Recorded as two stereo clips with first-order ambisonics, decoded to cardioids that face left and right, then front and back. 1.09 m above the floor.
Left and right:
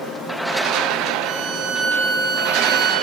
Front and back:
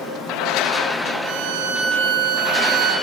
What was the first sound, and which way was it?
A violin, 130° right.